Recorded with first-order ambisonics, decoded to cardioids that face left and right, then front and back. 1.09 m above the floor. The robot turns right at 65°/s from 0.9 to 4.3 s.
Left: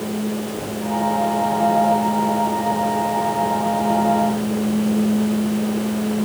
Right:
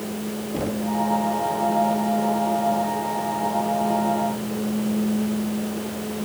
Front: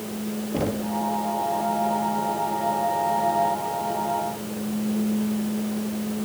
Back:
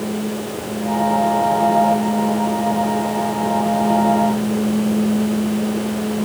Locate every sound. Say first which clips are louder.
0.5 s knocking: left 1 dB, even; 30° right, 1.5 m; by 0.9 s 25° right, 1.5 m